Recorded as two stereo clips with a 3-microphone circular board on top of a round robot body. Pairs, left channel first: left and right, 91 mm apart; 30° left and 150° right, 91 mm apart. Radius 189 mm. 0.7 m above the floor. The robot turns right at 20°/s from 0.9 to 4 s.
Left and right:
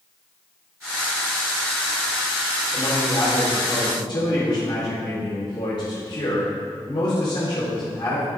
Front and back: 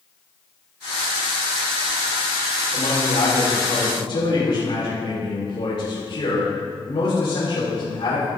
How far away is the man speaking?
About 4 m.